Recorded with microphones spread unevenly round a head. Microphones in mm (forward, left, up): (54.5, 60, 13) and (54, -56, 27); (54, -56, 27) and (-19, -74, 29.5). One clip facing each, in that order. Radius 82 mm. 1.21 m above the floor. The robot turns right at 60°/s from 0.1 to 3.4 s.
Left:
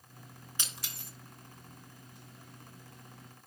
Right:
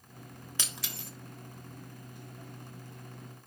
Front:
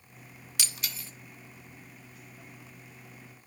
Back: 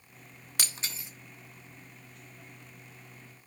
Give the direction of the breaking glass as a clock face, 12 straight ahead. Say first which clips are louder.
Right 3 dB, back 1 dB; 4 o'clock.